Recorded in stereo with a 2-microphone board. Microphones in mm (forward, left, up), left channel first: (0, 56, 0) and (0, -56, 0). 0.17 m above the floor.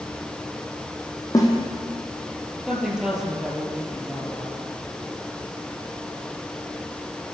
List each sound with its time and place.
1.3 s a snare drum: 30° left (ahead or behind), 4.5 m
2.7 s a woman speaking: 5° right (ahead or behind), 5 m